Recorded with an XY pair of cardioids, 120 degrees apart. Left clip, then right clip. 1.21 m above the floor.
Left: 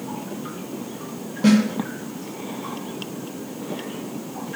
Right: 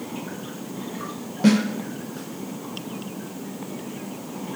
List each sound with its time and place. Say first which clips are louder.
1.4 s a snare drum: left 1 dB; 10° right, 0.8 m